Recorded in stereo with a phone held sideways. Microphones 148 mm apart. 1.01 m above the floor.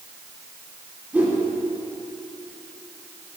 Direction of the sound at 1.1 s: 10° right (ahead or behind).